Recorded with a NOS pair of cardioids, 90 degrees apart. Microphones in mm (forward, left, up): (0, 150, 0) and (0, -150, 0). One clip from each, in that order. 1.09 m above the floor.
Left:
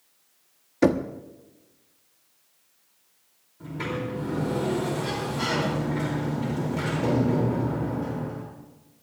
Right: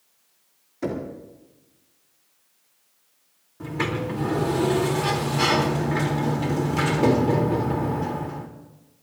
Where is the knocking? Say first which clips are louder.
Left 7 dB; 65° left, 1.4 m.